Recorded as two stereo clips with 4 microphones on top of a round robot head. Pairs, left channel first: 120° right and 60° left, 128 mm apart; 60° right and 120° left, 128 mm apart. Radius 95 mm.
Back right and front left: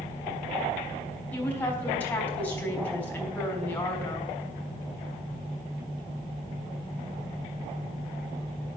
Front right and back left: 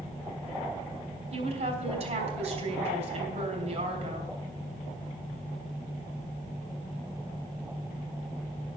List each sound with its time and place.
1.3 s a woman speaking: 160° left, 4 m